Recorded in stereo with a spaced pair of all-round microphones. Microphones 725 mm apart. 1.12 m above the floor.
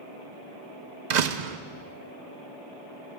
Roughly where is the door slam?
Right.